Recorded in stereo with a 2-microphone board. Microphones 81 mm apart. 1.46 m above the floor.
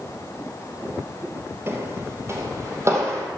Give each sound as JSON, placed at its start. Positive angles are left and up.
{"t": 1.7, "sound": "footsteps", "side_deg": -30, "distance_m": 2.0}